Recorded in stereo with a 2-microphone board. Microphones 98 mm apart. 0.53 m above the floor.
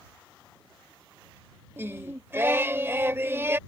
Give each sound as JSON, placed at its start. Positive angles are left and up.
{"t": 1.8, "sound": "singing", "side_deg": -25}